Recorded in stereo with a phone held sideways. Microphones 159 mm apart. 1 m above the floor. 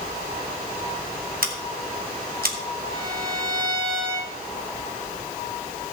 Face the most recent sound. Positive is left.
turn(degrees=-65)  # may be behind; listen again after turning